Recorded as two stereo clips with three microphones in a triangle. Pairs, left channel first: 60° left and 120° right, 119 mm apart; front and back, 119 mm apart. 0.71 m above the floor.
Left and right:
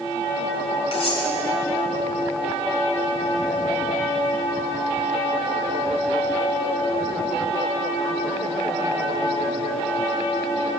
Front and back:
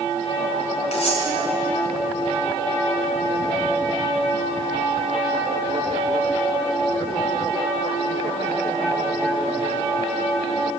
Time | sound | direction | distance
0.9 | cutlery clinking | 20° left | 2.5 m